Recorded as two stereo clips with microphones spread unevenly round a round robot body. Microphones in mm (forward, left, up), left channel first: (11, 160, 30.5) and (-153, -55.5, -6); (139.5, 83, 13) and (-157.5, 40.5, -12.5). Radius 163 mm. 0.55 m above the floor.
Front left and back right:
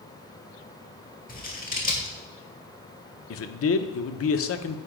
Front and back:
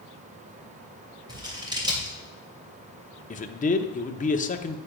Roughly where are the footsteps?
No footsteps in this recording.